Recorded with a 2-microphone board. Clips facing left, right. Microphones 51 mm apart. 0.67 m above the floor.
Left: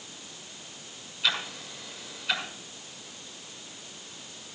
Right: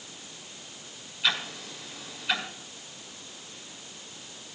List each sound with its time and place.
1.2 s ticking: centre (ahead or behind), 6.5 m